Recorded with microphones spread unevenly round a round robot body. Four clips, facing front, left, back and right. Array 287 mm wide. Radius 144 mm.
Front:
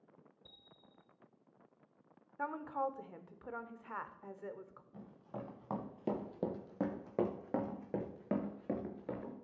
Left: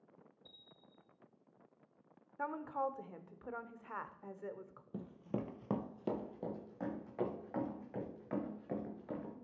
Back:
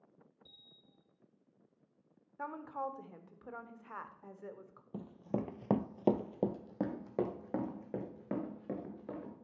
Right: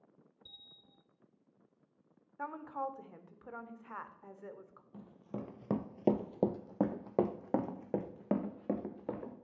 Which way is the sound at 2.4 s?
60° left.